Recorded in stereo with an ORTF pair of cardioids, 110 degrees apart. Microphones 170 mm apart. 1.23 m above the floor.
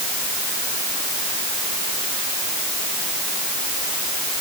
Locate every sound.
Only background noise.